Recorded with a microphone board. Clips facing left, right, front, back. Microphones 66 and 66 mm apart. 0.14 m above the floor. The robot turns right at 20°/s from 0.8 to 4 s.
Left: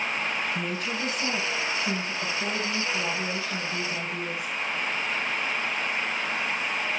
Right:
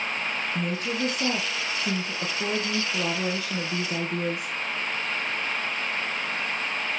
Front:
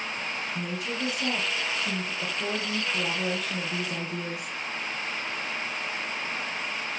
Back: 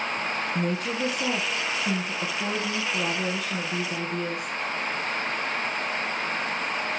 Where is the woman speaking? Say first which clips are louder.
Right 2 dB, back 5 dB; 140° right, 3.5 m; by 4.5 s 75° right, 3.5 m.